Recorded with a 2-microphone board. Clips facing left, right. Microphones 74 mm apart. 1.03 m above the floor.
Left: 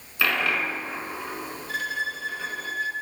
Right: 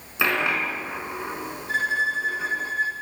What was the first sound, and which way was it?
A dropped coin, 20° right (ahead or behind).